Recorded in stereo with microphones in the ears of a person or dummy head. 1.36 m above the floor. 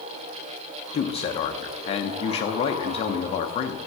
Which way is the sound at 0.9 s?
30° left (ahead or behind).